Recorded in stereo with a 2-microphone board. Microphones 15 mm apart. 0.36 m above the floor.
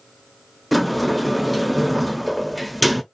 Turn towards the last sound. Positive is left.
turn(degrees=-5)  # may be behind; listen again after turning